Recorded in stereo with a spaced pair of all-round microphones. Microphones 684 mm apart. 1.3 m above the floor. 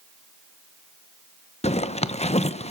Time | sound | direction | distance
1.6 | a zipper | 10° left (ahead or behind) | 0.8 m